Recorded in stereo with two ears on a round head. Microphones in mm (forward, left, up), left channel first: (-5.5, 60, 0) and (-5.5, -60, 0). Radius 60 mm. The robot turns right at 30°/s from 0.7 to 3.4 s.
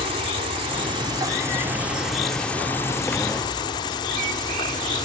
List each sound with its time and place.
0.0 s an insect: 45° right; by 5.1 s 35° left